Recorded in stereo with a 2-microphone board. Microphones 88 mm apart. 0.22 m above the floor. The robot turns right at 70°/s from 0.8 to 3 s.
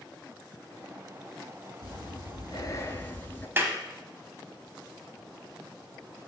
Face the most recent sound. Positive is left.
turn(degrees=-25)  # may be behind; listen again after turning